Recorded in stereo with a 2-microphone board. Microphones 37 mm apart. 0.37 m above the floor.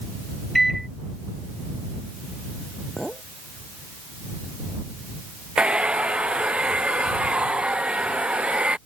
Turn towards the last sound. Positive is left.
turn(degrees=-30)  # may be behind; listen again after turning